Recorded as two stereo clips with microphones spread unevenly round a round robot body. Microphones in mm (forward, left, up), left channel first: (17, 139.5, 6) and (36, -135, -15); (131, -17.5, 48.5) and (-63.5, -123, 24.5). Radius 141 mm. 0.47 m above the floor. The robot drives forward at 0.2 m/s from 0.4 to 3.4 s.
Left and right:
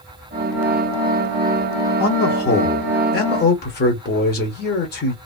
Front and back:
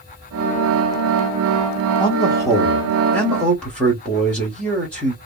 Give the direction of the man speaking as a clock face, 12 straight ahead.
9 o'clock.